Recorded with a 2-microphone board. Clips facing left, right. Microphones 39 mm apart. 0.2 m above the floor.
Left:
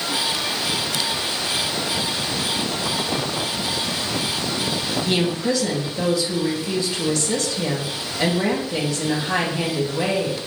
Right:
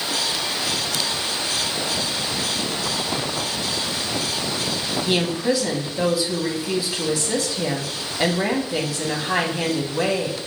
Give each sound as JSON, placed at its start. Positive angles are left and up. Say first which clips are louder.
{"t": 5.1, "sound": "a woman speaking", "louder": "right 1 dB", "side_deg": -15, "distance_m": 1.0}